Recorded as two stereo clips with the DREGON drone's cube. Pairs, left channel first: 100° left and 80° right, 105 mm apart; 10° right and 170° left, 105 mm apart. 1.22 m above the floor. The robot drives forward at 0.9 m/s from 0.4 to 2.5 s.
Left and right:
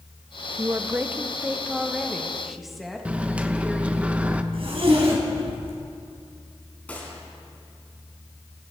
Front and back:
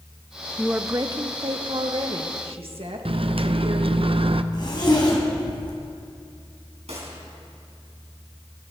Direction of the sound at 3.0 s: 155° right.